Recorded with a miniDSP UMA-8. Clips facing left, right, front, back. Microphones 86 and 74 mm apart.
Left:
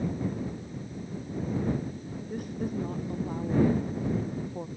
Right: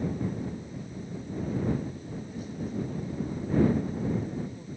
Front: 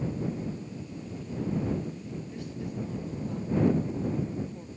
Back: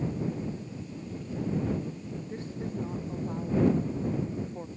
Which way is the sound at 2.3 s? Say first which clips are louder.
Left 4 dB, back 3 dB; 120° left.